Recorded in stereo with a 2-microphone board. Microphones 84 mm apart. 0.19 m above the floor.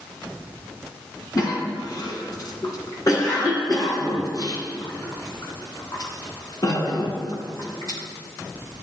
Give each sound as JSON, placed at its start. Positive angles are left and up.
{"t": 1.4, "sound": "a cough", "side_deg": 45, "distance_m": 1.9}